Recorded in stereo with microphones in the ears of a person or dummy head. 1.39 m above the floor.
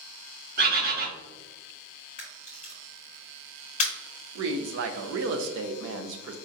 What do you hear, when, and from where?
0.6 s a bird: 60° right (ahead or behind), 1.5 m
2.2 s a camera shutter: 40° left (ahead or behind), 0.9 m
4.3 s a woman speaking: 70° right (ahead or behind), 0.5 m